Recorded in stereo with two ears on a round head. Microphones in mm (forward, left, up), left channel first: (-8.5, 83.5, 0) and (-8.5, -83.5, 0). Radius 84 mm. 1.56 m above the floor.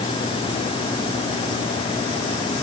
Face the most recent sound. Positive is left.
No sound to turn to.